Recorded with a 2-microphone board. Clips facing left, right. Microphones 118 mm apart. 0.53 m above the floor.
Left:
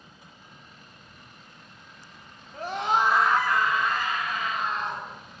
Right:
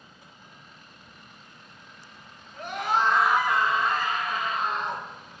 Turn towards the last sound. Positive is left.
turn(degrees=-50)  # may be behind; listen again after turning